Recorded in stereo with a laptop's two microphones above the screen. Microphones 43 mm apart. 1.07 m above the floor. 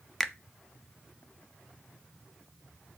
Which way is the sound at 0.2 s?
Centre (ahead or behind).